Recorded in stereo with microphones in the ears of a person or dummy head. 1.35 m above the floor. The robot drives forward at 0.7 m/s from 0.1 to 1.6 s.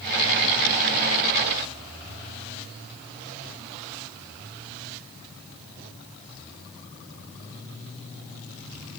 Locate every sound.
Only background noise.